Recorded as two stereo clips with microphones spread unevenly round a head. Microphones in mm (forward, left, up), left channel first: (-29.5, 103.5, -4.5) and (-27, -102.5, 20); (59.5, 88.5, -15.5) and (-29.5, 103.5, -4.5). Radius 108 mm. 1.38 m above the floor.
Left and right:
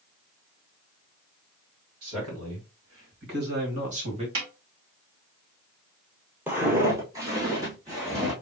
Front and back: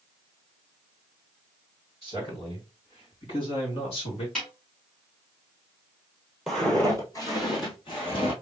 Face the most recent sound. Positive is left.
turn(degrees=-20)